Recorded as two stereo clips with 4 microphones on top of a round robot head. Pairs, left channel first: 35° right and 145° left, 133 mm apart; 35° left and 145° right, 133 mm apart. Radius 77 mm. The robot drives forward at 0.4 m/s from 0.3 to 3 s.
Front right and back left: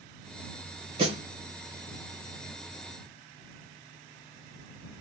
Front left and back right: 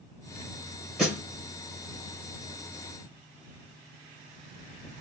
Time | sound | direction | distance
1.0 | a snare drum | 125° left | 1.2 m